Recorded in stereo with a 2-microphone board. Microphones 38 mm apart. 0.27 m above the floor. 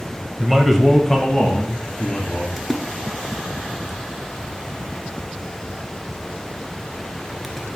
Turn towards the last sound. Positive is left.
turn(degrees=-5)  # may be behind; listen again after turning